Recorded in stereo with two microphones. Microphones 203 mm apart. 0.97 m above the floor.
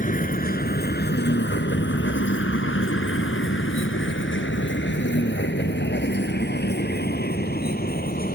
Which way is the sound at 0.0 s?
40° left (ahead or behind).